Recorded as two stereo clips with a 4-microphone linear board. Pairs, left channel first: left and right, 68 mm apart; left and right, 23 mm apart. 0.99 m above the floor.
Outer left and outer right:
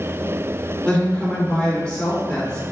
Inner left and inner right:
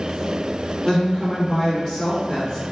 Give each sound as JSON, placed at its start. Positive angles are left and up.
{"t": 0.8, "sound": "a woman speaking", "side_deg": 15, "distance_m": 1.7}